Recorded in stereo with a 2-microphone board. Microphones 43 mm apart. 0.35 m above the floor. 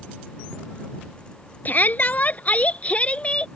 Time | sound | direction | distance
1.6 | a shout | 40° left (ahead or behind) | ?